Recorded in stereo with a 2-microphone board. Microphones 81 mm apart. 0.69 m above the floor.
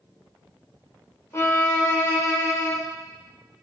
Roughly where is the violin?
Left.